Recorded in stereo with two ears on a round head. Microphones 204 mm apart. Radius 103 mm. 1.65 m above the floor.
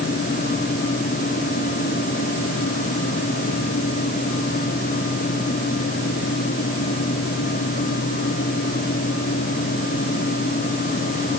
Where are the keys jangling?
No keys jangling in this recording.